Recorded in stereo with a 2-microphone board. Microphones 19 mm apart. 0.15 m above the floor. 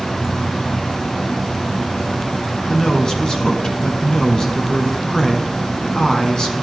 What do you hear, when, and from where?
2.7 s a man speaking: 40° left (ahead or behind), 1.5 m